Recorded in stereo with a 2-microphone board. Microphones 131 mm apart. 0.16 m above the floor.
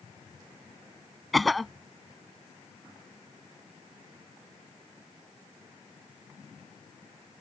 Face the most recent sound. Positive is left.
turn(degrees=0)  # may be behind; listen again after turning